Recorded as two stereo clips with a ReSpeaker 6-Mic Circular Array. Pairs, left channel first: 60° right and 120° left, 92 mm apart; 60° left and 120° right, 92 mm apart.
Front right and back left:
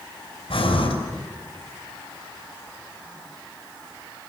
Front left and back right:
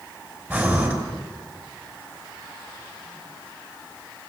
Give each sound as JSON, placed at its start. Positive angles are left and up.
{"t": 0.5, "sound": "breathing", "azimuth_deg": -55, "distance_m": 5.0}